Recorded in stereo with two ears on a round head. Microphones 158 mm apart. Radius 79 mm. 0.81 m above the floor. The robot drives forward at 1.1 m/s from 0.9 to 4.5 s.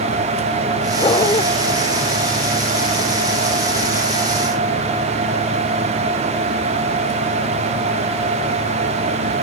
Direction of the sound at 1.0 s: 25° left (ahead or behind).